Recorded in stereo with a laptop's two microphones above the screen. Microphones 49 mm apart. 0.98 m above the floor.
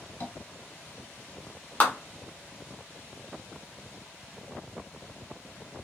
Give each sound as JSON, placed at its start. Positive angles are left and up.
{"t": 0.2, "sound": "tapping", "side_deg": 50, "distance_m": 1.1}
{"t": 1.8, "sound": "a clap", "side_deg": 40, "distance_m": 0.9}